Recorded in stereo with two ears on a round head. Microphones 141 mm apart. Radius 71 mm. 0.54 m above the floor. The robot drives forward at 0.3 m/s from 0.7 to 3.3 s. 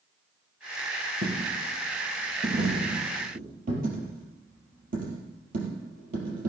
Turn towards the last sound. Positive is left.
turn(degrees=-60)  # may be behind; listen again after turning